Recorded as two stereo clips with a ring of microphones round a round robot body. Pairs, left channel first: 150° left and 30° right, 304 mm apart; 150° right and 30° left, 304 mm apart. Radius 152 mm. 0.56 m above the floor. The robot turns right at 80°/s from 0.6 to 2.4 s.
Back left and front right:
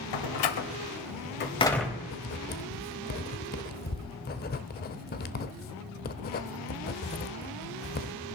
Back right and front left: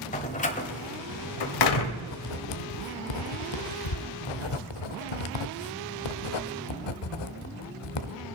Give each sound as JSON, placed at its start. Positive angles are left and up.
{"t": 0.1, "sound": "a door slam", "azimuth_deg": 145, "distance_m": 1.6}
{"t": 2.0, "sound": "writing", "azimuth_deg": -175, "distance_m": 0.7}